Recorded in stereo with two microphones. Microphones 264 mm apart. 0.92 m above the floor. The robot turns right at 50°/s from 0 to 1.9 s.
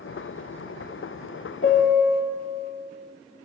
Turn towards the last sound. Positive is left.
turn(degrees=35)  # may be behind; listen again after turning